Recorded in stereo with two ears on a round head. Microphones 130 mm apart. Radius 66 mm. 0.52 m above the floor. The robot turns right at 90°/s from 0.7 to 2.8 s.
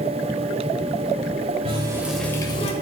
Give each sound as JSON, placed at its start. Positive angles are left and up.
{"t": 1.6, "sound": "a running tap", "azimuth_deg": -45, "distance_m": 1.2}